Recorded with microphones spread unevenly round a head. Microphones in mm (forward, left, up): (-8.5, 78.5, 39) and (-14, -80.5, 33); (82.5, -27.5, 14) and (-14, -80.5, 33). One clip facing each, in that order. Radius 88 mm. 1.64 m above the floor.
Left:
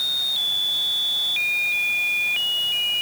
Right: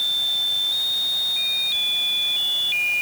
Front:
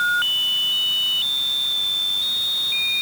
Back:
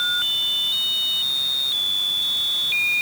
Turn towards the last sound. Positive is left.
No sound to turn to.